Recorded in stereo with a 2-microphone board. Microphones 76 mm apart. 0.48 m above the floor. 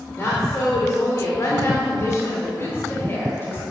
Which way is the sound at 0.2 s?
35° left (ahead or behind).